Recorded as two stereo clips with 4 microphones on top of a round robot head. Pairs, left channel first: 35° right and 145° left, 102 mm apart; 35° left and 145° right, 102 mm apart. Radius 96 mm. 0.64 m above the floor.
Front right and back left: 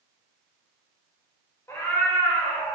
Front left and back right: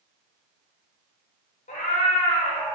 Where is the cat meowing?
30° left, 0.7 m; by 2.8 s 35° left, 1.4 m.